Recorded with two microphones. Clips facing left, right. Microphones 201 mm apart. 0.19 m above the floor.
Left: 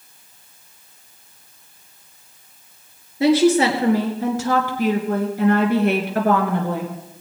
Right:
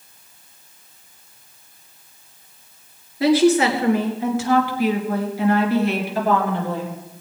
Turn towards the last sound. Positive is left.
turn(degrees=70)  # may be behind; listen again after turning